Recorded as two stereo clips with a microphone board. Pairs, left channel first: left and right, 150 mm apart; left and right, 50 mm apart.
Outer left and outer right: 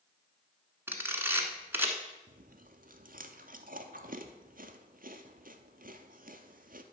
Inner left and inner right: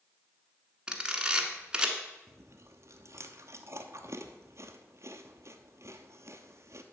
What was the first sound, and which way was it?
A camera shutter, 15° right (ahead or behind).